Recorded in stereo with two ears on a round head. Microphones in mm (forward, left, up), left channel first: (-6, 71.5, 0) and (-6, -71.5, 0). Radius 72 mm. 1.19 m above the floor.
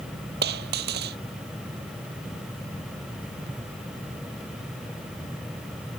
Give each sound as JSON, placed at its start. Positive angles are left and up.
{"t": 0.4, "sound": "a dropped coin", "side_deg": -70}